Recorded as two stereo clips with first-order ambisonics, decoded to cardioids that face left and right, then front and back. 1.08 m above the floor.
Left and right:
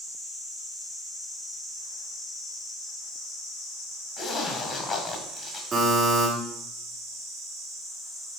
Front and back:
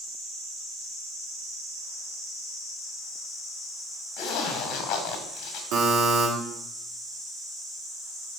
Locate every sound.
4.2 s a zipper: 20° left, 1.8 m
5.7 s a buzzer: 165° right, 2.5 m